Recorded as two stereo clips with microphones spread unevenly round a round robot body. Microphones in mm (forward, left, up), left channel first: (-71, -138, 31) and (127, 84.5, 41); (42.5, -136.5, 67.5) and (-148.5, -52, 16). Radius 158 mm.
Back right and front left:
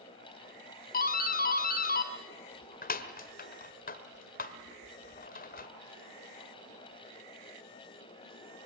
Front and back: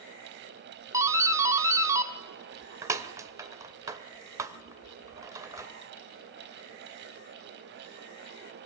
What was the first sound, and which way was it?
A doorbell, 165° right.